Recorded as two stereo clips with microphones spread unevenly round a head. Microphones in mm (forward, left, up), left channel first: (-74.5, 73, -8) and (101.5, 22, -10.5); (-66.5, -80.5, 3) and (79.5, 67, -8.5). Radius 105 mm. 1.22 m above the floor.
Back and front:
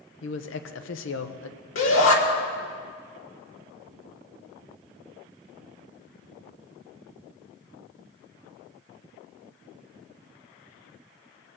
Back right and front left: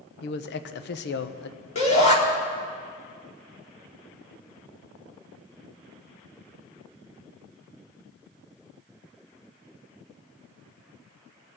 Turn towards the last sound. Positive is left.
turn(degrees=165)